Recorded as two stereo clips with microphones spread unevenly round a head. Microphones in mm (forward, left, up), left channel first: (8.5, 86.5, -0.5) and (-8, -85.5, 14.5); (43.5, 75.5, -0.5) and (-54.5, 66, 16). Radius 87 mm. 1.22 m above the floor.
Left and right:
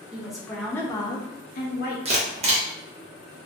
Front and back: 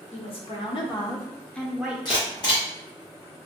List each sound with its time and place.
0.1 s a woman speaking: 10° right, 1.0 m; by 1.9 s 100° left, 0.7 m
2.0 s a camera shutter: 40° right, 0.8 m